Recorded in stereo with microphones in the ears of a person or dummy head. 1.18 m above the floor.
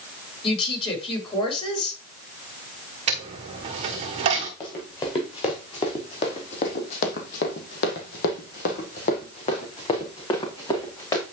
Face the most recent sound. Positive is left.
turn(degrees=20)  # may be behind; listen again after turning